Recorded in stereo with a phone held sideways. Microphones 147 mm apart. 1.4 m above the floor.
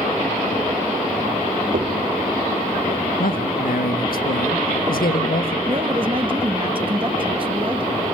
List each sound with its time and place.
1.7 s knocking: 65° right (ahead or behind), 2.5 m
3.2 s a man speaking: 80° left, 1.5 m
5.7 s a woman speaking: 35° right (ahead or behind), 1.6 m